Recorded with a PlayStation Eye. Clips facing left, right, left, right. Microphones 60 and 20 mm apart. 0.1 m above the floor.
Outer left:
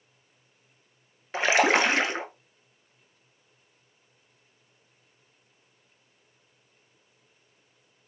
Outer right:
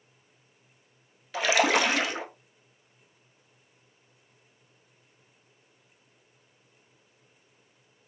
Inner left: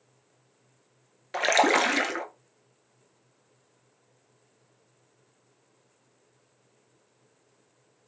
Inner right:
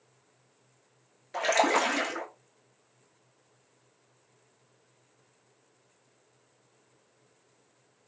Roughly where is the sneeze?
I don't hear a sneeze.